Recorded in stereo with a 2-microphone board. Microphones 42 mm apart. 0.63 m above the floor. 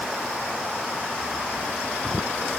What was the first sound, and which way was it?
Only background noise.